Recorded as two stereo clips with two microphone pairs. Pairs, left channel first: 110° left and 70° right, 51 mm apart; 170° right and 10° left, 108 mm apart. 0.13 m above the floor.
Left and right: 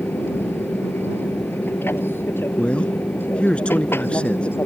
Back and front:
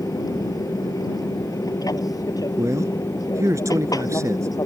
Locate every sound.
0.0 s an aircraft: 140° left
2.6 s a man speaking: 55° left